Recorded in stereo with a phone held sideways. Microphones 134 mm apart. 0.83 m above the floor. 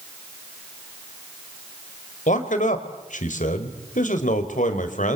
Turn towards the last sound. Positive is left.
turn(degrees=65)  # may be behind; listen again after turning